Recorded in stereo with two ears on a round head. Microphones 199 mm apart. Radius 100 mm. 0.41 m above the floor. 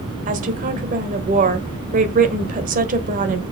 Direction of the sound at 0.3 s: 35° right (ahead or behind).